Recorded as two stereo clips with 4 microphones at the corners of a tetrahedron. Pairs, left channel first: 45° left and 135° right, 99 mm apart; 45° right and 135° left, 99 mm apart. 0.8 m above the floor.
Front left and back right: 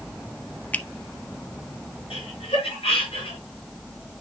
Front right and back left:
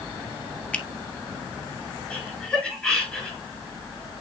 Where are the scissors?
No scissors in this recording.